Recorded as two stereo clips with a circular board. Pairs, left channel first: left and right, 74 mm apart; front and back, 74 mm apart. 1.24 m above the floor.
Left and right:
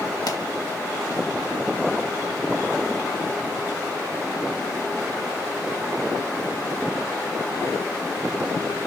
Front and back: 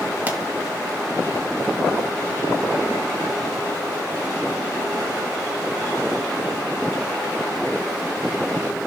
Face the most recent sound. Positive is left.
turn(degrees=110)